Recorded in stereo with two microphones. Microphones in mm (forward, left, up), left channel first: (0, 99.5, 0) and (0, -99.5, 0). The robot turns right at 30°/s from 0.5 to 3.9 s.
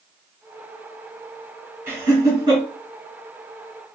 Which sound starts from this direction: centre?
Laughter, at 1.9 s.